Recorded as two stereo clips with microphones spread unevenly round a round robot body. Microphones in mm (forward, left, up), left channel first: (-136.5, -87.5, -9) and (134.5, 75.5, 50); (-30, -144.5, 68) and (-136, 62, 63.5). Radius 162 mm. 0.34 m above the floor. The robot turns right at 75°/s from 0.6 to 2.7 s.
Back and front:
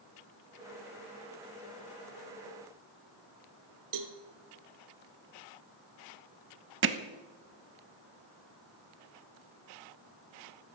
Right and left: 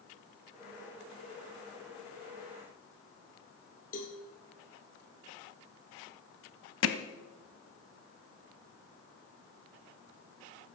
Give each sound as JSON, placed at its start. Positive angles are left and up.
{"t": 3.9, "sound": "a cowbell", "azimuth_deg": 0, "distance_m": 1.6}
{"t": 6.8, "sound": "hammering", "azimuth_deg": -25, "distance_m": 1.0}